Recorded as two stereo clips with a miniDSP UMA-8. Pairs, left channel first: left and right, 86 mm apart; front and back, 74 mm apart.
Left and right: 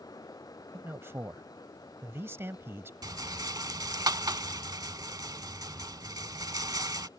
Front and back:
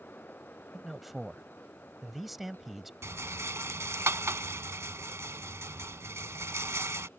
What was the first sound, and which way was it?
A man speaking, 95° right.